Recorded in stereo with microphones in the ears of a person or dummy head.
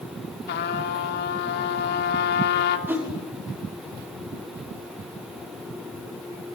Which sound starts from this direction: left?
A trumpet, at 0.5 s.